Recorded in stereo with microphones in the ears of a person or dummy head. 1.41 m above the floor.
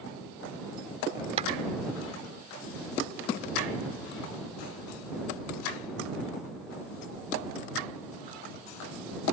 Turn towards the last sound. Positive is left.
turn(degrees=-40)  # may be behind; listen again after turning